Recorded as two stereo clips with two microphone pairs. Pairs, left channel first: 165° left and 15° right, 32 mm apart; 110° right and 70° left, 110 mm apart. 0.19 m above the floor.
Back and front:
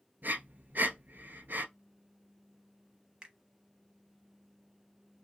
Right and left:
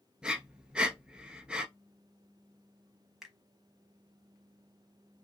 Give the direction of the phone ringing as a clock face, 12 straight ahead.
I don't hear a phone ringing.